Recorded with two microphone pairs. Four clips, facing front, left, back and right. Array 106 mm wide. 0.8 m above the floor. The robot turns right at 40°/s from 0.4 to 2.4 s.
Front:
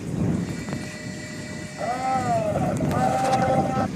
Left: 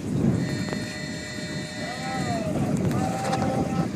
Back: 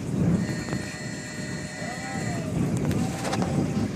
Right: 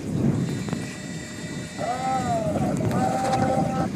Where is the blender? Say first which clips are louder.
Right 7 dB, front 11 dB; 45° right; by 3.9 s 20° right.